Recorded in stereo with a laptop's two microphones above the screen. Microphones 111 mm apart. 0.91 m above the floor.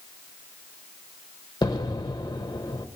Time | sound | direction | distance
1.6 | an explosion | 35° left (ahead or behind) | 0.9 m